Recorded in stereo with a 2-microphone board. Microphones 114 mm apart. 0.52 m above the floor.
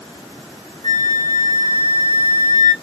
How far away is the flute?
About 1.8 m.